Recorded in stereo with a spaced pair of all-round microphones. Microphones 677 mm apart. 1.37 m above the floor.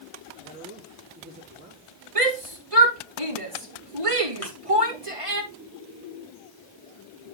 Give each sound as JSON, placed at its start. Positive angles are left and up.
{"t": 0.4, "sound": "a man speaking", "side_deg": -5, "distance_m": 5.0}
{"t": 2.1, "sound": "a shout", "side_deg": -50, "distance_m": 3.5}
{"t": 4.4, "sound": "a thud", "side_deg": 20, "distance_m": 5.0}